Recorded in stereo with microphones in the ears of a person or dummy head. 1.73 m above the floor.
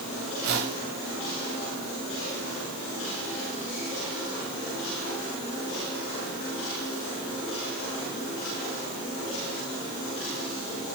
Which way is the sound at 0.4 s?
70° right (ahead or behind).